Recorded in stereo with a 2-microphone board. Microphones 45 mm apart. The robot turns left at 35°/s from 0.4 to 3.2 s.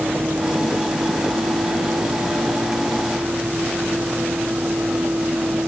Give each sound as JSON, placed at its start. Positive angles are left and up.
{"t": 0.0, "sound": "a vehicle", "azimuth_deg": -45}